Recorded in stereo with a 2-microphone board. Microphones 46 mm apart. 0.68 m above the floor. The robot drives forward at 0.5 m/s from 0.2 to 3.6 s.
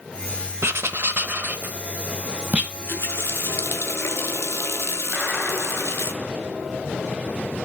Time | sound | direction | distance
0.6 | writing | 70° right (ahead or behind) | 0.8 m
2.7 | a running tap | 50° left (ahead or behind) | 1.0 m
5.1 | a clap | 25° right (ahead or behind) | 3 m